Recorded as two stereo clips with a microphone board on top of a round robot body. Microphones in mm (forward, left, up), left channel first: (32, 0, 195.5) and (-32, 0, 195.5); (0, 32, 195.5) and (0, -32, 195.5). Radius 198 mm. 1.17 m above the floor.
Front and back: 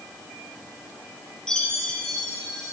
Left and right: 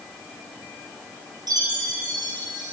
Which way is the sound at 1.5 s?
80° right.